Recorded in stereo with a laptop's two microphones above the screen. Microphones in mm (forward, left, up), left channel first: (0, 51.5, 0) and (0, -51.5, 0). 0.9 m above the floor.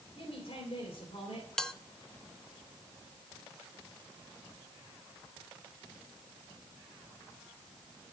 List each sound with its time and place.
0.1 s a woman speaking: 80° left, 3 m
1.6 s a bell: 5° left (ahead or behind), 0.7 m